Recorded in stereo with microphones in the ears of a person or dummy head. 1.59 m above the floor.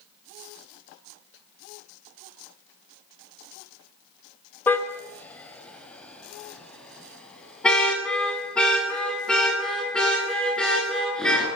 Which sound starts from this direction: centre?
A car horn, at 4.7 s.